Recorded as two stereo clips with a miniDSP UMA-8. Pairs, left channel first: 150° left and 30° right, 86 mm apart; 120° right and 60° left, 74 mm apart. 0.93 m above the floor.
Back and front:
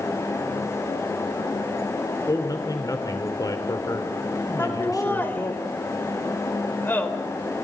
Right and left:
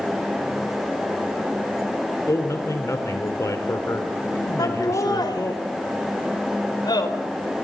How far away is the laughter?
About 4.5 m.